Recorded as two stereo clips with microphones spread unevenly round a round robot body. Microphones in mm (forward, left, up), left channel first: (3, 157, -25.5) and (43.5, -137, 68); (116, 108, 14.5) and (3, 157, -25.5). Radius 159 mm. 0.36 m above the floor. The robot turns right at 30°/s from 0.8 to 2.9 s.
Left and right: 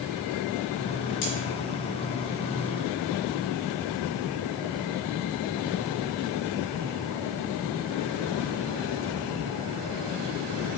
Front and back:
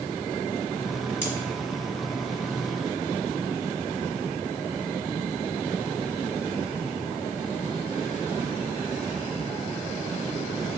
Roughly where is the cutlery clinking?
Left.